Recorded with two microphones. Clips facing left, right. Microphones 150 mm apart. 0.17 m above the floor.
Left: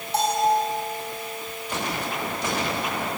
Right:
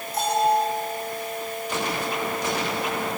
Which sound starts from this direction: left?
A bell, at 0.1 s.